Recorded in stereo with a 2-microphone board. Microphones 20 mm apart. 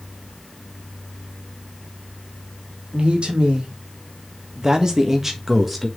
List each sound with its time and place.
2.9 s a man speaking: 60° right (ahead or behind), 2 m; by 5.9 s centre (ahead or behind), 1.5 m